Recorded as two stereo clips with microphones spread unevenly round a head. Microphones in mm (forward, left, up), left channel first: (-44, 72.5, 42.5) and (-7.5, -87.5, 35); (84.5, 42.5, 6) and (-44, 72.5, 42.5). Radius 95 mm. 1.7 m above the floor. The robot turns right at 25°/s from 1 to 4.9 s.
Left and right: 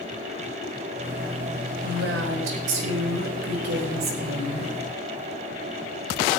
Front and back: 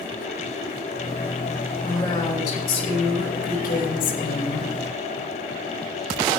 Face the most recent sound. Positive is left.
turn(degrees=-20)